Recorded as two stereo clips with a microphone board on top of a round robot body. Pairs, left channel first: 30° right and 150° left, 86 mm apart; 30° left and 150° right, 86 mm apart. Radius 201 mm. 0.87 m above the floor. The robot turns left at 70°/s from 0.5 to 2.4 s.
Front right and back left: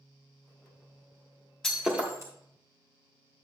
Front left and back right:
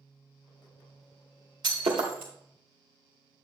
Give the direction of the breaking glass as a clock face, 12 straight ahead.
4 o'clock.